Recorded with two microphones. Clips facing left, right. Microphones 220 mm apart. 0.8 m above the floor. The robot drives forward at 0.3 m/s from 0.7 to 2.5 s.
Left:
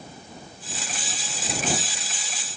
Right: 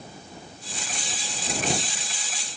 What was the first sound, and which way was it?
Only background noise.